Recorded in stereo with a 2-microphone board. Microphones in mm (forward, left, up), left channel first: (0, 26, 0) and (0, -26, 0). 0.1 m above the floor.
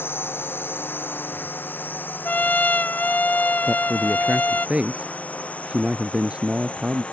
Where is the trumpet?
35° left (ahead or behind).